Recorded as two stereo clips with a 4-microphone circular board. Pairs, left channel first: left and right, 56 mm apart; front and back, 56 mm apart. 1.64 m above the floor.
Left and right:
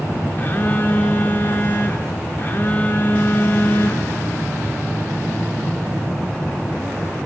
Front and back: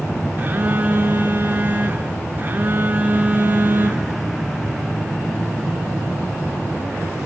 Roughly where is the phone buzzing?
Behind left.